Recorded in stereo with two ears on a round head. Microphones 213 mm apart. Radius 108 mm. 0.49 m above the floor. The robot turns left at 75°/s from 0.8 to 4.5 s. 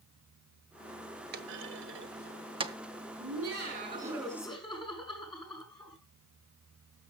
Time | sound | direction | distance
1.3 | a clunk | 40° right (ahead or behind) | 0.8 m
3.2 | laughter | 100° right | 6 m